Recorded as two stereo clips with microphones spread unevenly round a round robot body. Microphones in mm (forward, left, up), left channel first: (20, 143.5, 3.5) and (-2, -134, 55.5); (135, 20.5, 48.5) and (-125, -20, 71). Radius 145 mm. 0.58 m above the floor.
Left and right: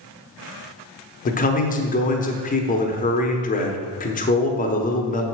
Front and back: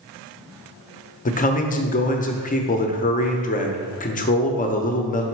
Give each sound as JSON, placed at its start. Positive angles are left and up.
{"t": 1.2, "sound": "a man speaking", "azimuth_deg": 50, "distance_m": 0.8}